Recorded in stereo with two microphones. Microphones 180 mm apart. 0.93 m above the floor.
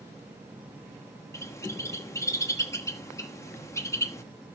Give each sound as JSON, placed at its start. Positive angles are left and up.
{"t": 1.3, "sound": "a bird", "side_deg": 15, "distance_m": 1.1}